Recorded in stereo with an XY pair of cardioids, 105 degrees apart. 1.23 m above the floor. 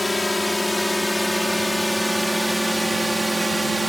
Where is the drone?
15° left; by 3.9 s 15° right.